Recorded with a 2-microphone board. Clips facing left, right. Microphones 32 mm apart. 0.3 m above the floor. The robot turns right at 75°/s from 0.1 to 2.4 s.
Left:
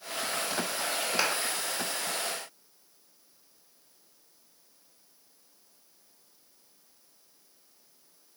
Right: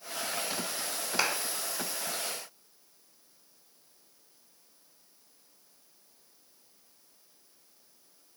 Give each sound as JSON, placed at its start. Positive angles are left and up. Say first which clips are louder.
{"t": 1.2, "sound": "a clap", "louder": "even", "side_deg": 5, "distance_m": 0.9}